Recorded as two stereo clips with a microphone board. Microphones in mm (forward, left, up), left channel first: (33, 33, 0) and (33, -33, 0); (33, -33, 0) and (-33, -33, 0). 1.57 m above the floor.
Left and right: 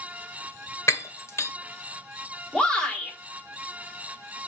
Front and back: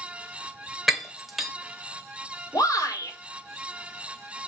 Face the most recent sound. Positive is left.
turn(degrees=15)